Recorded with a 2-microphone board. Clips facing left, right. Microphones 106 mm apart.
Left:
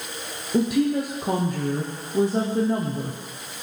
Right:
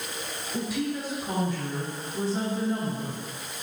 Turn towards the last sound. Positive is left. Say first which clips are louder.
# left 9 dB
turn(degrees=60)  # may be behind; listen again after turning